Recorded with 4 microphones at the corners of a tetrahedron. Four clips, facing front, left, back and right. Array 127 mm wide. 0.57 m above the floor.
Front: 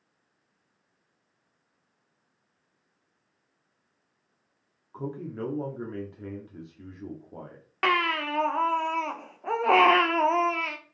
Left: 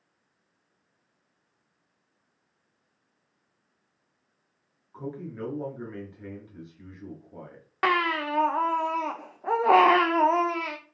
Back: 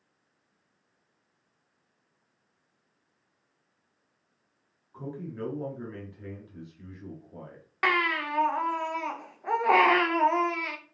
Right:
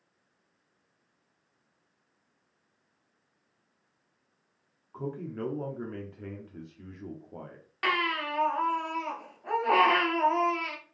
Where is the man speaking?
30° right, 0.9 m.